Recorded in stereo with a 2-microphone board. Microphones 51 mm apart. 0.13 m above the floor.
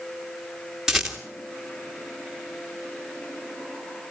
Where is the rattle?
5° right (ahead or behind), 2.5 m.